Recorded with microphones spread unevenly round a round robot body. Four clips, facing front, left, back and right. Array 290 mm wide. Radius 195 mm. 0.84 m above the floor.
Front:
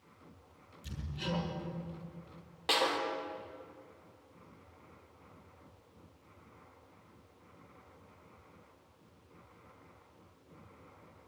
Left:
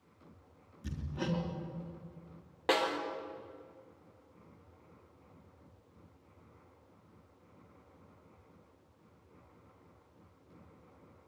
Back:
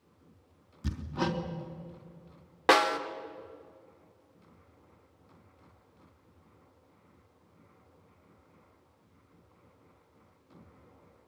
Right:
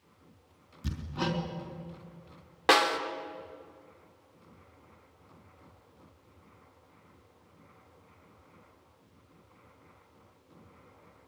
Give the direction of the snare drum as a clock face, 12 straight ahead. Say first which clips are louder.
Right 6 dB, back 8 dB; 4 o'clock.